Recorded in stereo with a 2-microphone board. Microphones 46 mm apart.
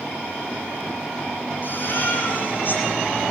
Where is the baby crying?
50° left (ahead or behind), 8.5 m.